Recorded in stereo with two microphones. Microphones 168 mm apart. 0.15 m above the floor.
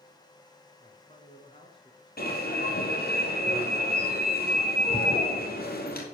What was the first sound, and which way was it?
A man speaking, 50° left (ahead or behind).